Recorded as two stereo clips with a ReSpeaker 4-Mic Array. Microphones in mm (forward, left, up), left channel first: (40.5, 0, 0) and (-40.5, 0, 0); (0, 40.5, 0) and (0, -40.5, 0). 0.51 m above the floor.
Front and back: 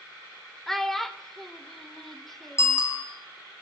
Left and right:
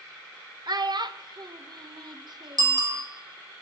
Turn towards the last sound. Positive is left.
turn(degrees=-55)